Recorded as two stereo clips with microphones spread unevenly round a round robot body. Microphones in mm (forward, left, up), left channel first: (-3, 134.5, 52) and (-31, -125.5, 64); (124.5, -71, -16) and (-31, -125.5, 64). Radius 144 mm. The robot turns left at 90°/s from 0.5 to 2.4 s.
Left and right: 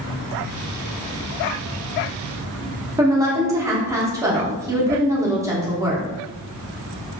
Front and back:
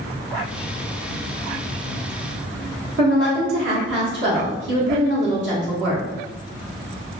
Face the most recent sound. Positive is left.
turn(degrees=-175)